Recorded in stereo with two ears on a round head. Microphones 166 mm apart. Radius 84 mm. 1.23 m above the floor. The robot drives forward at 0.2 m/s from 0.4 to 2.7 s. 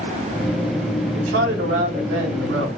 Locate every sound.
1.1 s a man speaking: 70° right (ahead or behind), 1.9 m; by 2.7 s 75° right (ahead or behind), 1.9 m